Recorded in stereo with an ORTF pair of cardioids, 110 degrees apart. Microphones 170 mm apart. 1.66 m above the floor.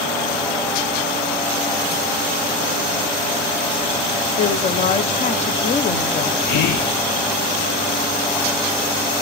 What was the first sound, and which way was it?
A woman speaking, 40° left.